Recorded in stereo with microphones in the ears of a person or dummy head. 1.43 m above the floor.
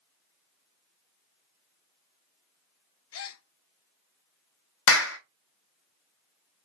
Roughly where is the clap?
Left.